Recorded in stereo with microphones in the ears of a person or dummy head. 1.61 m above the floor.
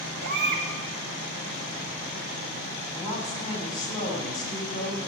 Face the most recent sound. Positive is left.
turn(degrees=30)  # may be behind; listen again after turning